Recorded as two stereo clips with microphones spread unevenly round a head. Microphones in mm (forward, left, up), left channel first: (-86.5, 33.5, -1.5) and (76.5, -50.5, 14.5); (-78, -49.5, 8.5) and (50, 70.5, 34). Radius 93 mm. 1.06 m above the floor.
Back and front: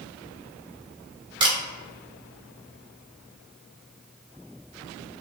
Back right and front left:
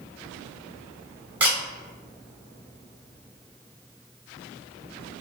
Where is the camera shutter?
15° right, 0.7 m.